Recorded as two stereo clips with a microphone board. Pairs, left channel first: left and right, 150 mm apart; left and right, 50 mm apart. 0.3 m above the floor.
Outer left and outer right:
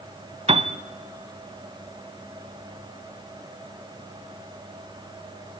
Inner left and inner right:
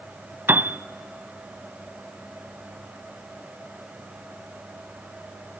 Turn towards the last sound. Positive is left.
turn(degrees=-45)  # may be behind; listen again after turning